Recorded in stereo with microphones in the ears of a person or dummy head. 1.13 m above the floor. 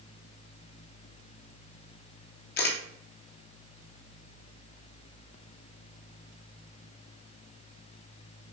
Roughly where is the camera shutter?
Left.